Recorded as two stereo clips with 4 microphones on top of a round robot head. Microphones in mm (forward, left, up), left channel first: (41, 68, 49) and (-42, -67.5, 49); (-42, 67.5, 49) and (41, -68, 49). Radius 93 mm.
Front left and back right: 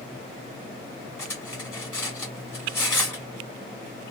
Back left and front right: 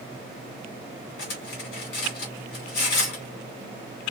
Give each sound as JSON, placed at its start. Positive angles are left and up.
{"t": 1.2, "sound": "cutlery clinking", "azimuth_deg": 135, "distance_m": 1.3}